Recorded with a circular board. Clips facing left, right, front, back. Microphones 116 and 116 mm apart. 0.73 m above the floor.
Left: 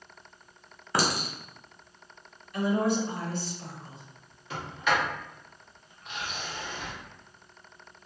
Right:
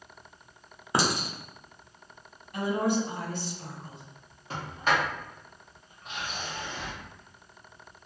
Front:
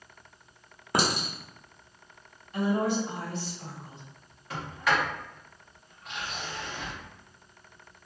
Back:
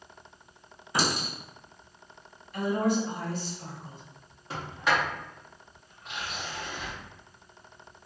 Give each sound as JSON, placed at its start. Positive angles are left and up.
{"t": 0.9, "sound": "a clink", "azimuth_deg": -25, "distance_m": 0.8}
{"t": 2.5, "sound": "a woman speaking", "azimuth_deg": -65, "distance_m": 1.9}
{"t": 4.5, "sound": "a sliding door", "azimuth_deg": -125, "distance_m": 1.2}